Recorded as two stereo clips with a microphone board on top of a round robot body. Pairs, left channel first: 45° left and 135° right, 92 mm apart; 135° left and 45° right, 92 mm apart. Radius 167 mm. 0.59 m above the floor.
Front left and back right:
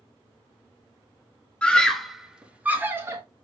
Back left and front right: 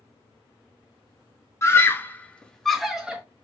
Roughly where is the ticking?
I don't hear ticking.